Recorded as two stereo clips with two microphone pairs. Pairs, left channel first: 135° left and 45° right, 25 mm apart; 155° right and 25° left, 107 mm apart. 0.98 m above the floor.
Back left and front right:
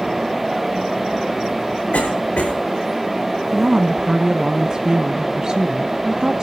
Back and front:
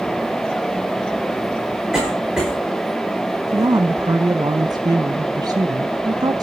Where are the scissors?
No scissors in this recording.